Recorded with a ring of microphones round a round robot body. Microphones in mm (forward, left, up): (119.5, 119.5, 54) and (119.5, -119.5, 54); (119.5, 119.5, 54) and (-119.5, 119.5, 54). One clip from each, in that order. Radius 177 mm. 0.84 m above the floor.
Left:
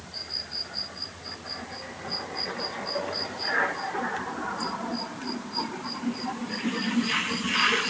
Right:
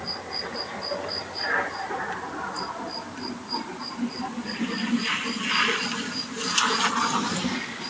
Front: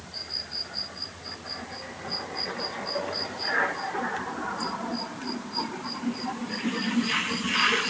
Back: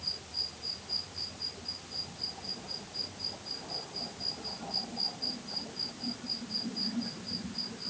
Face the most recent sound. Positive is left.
No sound to turn to.